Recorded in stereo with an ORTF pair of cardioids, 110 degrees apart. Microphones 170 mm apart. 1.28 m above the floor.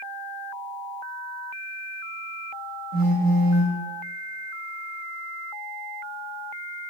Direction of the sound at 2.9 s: 65° right.